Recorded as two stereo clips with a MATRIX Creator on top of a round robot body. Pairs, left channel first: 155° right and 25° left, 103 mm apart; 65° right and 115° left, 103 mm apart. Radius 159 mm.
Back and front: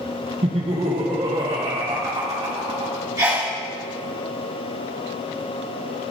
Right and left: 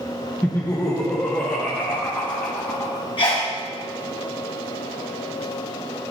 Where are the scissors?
I don't hear scissors.